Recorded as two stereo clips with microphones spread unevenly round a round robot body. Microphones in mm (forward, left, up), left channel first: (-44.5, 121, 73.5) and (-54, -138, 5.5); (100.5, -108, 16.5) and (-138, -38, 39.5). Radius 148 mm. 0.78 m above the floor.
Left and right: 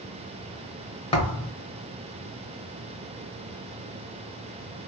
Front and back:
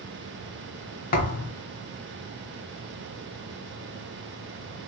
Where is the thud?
40° left, 0.7 m.